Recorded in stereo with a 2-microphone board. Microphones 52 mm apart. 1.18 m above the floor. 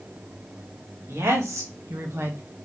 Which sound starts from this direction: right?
A woman speaking, at 1.1 s.